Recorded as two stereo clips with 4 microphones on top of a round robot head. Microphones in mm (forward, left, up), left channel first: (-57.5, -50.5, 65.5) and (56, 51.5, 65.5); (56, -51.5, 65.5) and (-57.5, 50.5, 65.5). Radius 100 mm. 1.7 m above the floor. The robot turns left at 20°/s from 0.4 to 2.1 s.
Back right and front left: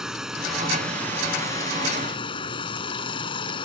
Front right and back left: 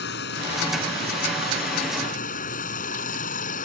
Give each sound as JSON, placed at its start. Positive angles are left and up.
{"t": 0.0, "sound": "running water", "azimuth_deg": -45}